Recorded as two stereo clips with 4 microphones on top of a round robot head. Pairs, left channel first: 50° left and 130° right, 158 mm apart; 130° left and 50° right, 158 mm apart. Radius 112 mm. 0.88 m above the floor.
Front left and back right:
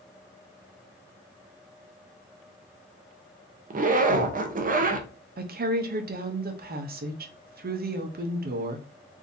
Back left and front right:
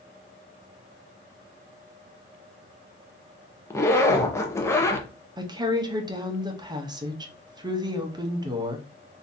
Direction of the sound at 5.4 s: 115° right.